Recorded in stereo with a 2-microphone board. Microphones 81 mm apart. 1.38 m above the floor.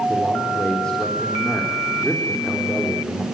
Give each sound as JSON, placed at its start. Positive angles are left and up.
{"t": 0.1, "sound": "a man speaking", "side_deg": 10, "distance_m": 4.0}